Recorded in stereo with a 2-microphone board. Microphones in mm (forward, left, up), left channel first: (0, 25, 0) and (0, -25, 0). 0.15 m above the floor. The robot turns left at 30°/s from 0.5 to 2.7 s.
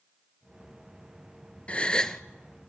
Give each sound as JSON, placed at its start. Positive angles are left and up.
{"t": 1.7, "sound": "a gasp", "side_deg": 25, "distance_m": 0.9}